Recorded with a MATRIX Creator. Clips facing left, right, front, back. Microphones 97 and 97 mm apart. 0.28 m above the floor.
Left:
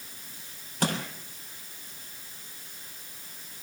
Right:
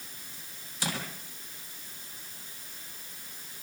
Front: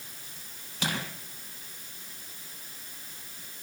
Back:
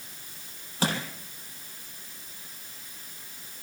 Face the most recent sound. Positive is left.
turn(degrees=130)